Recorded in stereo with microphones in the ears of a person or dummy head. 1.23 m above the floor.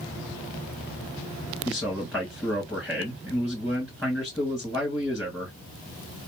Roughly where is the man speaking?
Centre.